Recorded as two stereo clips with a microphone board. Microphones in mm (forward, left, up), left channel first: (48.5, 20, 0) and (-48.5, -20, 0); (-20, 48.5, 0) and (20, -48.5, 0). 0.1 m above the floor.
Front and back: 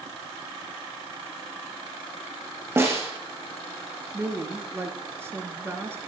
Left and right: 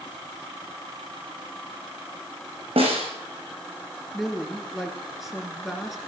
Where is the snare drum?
90° right, 3 m.